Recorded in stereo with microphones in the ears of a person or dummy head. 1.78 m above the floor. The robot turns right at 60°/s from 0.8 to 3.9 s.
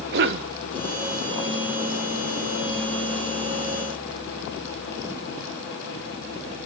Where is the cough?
60° right (ahead or behind), 1.3 m.